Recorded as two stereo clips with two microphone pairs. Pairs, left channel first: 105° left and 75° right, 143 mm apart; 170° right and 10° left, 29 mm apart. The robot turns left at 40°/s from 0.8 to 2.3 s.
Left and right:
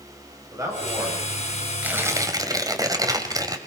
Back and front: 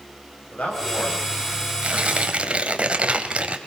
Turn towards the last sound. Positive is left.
turn(degrees=-20)